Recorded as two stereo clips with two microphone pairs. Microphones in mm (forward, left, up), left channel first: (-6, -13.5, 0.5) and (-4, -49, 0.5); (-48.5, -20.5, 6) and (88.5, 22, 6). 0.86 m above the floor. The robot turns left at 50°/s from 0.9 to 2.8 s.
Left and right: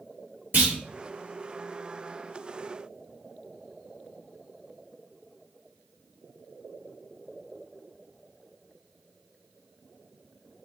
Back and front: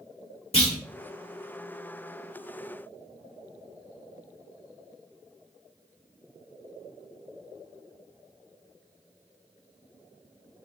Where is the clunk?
115° right, 1.5 m.